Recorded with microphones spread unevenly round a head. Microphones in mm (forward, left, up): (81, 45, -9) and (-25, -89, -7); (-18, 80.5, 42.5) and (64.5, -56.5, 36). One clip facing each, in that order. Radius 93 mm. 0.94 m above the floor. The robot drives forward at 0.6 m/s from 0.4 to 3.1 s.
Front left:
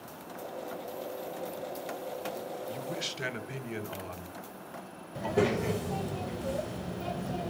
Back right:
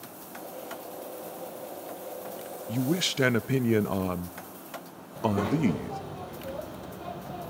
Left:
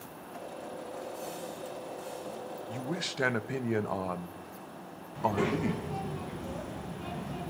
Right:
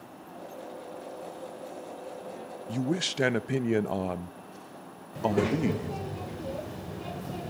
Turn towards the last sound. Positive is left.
turn(degrees=-15)